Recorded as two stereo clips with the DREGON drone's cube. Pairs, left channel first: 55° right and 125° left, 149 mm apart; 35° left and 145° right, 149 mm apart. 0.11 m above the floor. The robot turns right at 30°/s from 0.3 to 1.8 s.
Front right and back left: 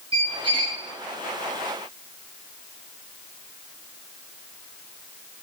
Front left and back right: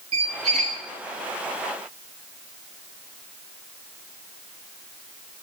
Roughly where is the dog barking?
I don't hear a dog barking.